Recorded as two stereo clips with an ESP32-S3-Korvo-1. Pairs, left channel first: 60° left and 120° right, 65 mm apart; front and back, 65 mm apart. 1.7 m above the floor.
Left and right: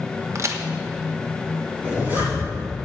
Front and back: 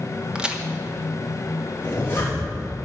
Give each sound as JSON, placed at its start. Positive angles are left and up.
{"t": 0.3, "sound": "a crack", "azimuth_deg": -105, "distance_m": 1.1}
{"t": 1.8, "sound": "a zipper", "azimuth_deg": -60, "distance_m": 4.0}